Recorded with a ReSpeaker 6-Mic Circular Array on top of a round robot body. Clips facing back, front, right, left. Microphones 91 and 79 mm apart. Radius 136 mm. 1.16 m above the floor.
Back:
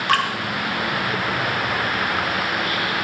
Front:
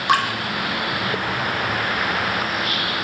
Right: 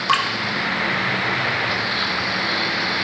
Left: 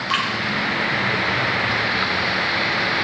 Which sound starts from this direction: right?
Dripping, at 0.1 s.